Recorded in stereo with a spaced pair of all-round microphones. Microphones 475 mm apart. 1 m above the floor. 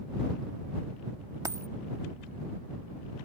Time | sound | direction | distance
1.4 | a dropped coin | 5° right (ahead or behind) | ?